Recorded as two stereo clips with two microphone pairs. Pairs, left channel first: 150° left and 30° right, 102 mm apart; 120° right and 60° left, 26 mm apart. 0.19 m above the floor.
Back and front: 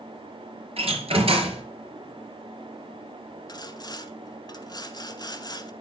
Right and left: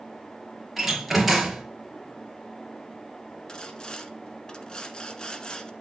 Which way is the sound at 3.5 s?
170° right.